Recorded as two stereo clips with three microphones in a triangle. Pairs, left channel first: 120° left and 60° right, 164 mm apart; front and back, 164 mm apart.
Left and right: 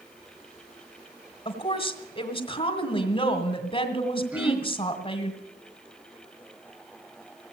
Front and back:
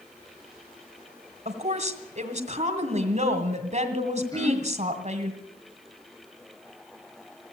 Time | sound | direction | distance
1.4 | a woman speaking | 160° left | 2 m
4.3 | throat clearing | 5° left | 1.6 m